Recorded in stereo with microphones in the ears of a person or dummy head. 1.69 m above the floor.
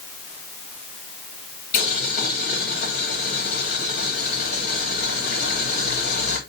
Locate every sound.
1.7 s boiling: 60° left (ahead or behind), 3 m